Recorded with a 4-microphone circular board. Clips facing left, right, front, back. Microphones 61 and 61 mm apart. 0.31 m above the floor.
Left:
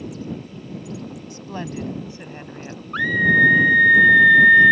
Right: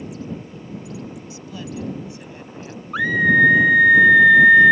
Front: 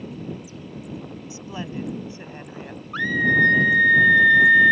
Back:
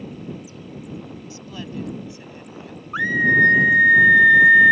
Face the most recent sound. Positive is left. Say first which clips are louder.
# right 1 dB, back 2 dB
turn(degrees=-160)